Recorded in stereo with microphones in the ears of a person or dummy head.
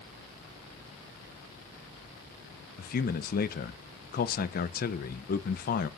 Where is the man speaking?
35° left (ahead or behind), 0.9 m.